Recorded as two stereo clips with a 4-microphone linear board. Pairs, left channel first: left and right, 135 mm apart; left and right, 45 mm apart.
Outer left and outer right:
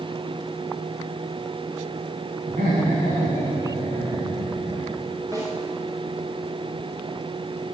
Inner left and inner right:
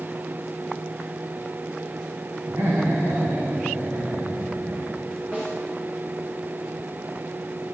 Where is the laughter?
80° right, 8.5 m.